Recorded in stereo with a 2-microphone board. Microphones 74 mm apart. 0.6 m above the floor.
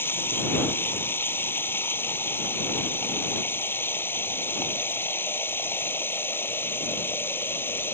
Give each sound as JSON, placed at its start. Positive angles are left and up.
{"t": 0.0, "sound": "running water", "side_deg": 30}